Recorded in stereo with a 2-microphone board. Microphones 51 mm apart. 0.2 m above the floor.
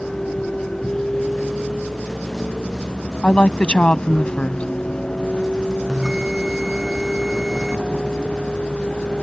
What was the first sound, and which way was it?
A vehicle, 10° left (ahead or behind).